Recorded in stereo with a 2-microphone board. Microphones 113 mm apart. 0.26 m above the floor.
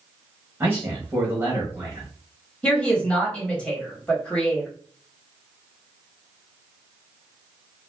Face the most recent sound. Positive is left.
turn(degrees=10)  # may be behind; listen again after turning